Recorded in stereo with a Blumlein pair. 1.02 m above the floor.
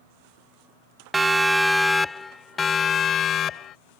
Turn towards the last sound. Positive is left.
turn(degrees=30)